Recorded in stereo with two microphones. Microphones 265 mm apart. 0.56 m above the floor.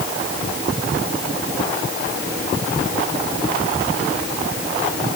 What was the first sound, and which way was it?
Only background noise.